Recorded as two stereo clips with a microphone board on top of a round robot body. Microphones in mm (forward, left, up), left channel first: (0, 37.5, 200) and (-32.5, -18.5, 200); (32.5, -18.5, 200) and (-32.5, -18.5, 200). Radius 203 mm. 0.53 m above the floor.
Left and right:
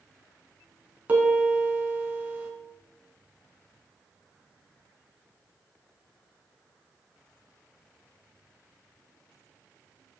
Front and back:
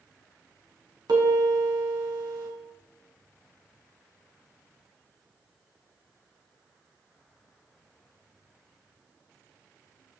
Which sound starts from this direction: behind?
A piano, at 1.1 s.